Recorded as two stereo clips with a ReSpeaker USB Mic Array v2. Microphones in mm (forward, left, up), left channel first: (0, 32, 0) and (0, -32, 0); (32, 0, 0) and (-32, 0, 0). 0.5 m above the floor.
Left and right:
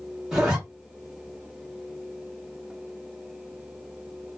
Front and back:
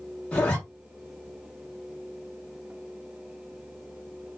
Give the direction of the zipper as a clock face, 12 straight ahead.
1 o'clock.